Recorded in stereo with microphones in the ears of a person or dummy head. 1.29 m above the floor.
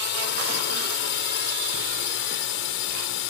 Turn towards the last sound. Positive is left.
turn(degrees=75)  # may be behind; listen again after turning